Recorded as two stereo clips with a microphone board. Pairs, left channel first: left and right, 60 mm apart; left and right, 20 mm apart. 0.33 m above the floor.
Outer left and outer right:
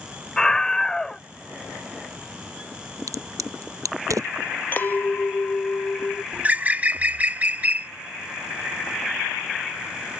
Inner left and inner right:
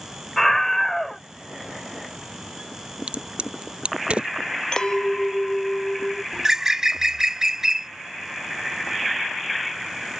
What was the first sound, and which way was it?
A scream, 10° left (ahead or behind).